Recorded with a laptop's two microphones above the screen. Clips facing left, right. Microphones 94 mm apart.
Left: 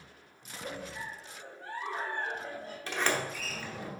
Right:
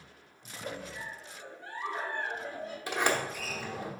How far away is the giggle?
About 3.5 m.